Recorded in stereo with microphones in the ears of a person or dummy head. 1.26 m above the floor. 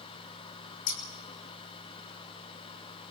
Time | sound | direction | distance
0.9 | scissors | 80° left | 5.5 m